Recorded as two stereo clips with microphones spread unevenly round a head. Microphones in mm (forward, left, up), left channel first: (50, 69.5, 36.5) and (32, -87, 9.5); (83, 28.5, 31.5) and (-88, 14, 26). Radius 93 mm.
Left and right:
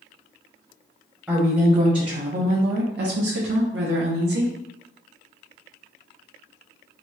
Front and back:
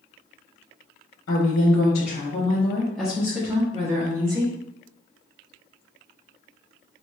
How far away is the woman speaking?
About 1.0 m.